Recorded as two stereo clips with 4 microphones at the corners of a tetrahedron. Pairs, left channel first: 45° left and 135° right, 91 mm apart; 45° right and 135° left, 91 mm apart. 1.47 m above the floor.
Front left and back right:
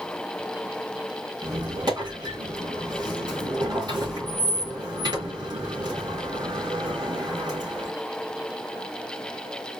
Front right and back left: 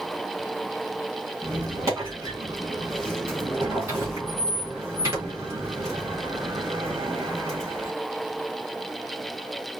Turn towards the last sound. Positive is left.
turn(degrees=-175)